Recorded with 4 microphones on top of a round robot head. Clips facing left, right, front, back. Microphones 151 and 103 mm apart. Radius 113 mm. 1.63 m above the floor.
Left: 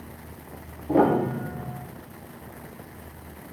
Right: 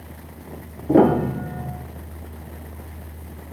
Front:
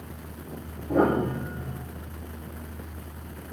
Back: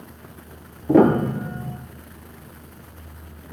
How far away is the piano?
About 1.0 m.